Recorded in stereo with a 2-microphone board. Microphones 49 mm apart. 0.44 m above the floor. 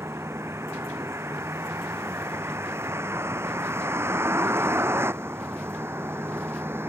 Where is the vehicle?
65° right (ahead or behind); by 6.9 s 55° right (ahead or behind).